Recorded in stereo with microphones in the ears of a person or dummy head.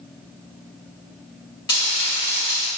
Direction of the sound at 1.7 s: 30° left (ahead or behind).